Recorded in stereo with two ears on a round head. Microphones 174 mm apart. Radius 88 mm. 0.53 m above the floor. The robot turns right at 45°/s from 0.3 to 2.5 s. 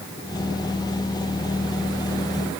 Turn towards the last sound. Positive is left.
No sound to turn to.